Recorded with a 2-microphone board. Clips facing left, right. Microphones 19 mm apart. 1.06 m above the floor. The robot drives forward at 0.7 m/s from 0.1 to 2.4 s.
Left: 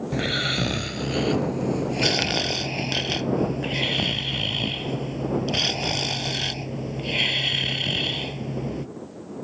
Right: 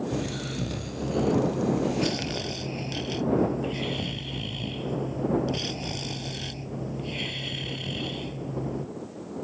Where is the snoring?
60° left (ahead or behind); by 8.9 s 40° left (ahead or behind).